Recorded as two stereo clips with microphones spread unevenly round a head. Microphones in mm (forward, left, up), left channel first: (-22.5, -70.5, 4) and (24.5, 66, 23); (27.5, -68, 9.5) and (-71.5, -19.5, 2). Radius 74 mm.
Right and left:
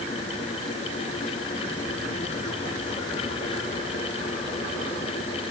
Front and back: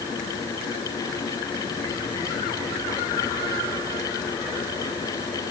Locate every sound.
Only background noise.